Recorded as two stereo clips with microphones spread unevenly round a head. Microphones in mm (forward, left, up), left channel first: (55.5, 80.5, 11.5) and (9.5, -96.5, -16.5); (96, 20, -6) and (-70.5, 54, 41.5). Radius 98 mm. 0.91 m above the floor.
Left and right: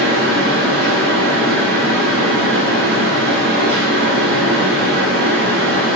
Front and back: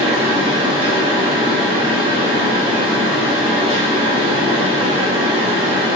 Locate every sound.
0.0 s a fan: 125° right, 1.0 m